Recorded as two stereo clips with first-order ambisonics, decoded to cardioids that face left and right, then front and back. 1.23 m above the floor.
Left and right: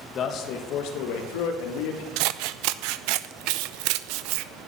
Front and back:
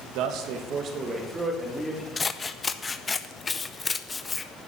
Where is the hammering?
I don't hear hammering.